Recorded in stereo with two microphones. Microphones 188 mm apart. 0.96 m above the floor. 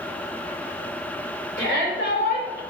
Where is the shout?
80° left, 4 m.